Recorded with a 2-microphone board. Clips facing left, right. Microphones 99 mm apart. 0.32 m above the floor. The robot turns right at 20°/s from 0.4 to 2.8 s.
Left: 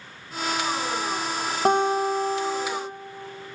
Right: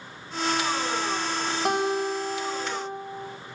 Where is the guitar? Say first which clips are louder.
Left 5 dB; 30° left (ahead or behind), 1.7 m.